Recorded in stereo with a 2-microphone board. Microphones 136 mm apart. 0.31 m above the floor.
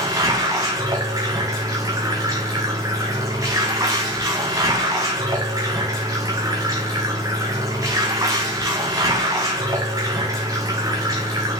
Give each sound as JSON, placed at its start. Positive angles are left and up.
{"t": 0.0, "sound": "running water", "side_deg": -25, "distance_m": 4.5}